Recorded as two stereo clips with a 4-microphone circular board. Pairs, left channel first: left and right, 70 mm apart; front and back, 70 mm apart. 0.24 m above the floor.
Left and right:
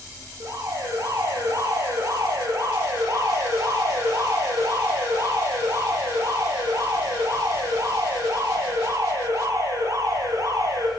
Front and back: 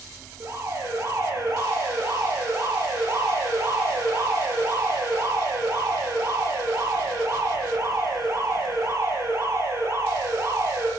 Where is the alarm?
130° right, 8.5 m.